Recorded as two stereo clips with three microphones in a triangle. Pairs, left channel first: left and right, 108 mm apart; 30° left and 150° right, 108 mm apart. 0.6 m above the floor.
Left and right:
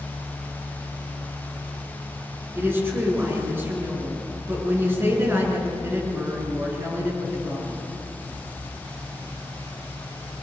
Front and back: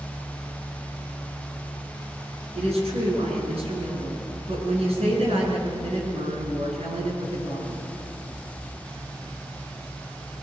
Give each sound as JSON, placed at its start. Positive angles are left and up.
{"t": 2.5, "sound": "a woman speaking", "azimuth_deg": -160, "distance_m": 7.5}